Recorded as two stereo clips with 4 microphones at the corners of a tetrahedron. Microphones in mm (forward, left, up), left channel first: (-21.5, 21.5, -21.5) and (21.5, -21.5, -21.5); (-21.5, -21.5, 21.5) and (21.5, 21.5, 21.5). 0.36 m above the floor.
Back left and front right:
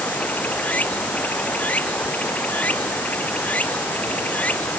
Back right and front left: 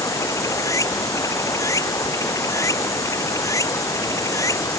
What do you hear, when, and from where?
0.0 s running water: 160° right